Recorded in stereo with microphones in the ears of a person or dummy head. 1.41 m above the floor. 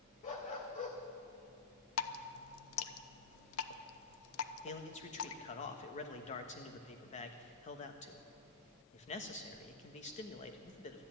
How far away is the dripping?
About 0.9 m.